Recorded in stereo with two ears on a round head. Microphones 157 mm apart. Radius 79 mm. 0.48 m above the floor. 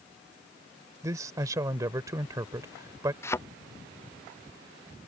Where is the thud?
15° left (ahead or behind).